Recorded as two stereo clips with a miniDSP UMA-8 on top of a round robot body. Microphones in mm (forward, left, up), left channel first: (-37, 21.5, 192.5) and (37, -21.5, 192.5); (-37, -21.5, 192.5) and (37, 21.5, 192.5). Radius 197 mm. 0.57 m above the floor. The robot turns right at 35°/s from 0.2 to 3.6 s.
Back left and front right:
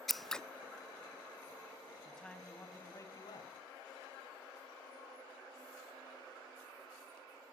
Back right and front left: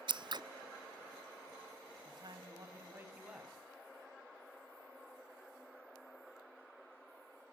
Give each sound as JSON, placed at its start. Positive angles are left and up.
{"t": 0.1, "sound": "scissors", "azimuth_deg": 60, "distance_m": 0.6}
{"t": 2.0, "sound": "a man speaking", "azimuth_deg": 65, "distance_m": 4.5}